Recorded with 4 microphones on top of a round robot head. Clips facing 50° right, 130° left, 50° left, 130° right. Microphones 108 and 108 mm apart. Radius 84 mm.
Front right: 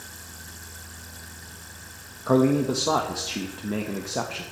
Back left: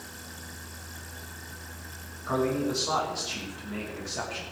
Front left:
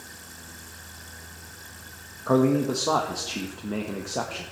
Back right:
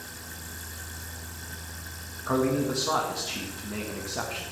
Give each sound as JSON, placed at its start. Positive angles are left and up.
{"t": 2.3, "sound": "a man speaking", "azimuth_deg": -10, "distance_m": 1.3}